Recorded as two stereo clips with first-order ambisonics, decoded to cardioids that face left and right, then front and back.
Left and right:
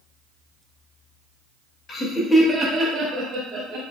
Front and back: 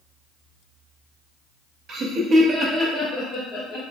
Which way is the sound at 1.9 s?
140° left.